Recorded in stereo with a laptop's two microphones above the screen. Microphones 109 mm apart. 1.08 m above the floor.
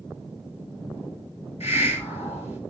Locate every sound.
1.6 s a hiss: 70° left (ahead or behind), 1.6 m